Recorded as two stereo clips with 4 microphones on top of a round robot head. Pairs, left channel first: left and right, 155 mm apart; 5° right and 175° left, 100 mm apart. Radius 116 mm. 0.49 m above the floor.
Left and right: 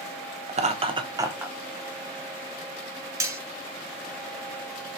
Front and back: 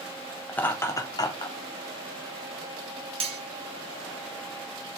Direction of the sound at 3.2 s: 160° right.